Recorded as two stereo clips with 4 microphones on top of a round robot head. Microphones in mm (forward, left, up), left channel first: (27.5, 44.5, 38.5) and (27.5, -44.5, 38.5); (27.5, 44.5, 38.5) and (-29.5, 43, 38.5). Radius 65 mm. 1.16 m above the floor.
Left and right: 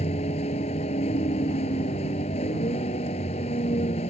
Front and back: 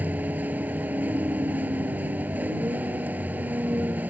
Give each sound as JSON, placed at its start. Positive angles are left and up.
{"t": 0.0, "sound": "a vehicle", "azimuth_deg": 120}